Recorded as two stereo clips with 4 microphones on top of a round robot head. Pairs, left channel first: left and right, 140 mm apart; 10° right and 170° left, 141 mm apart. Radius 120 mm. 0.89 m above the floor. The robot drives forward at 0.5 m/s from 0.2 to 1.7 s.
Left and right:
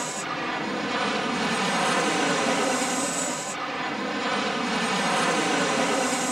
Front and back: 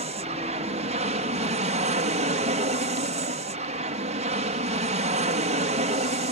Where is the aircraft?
Straight behind.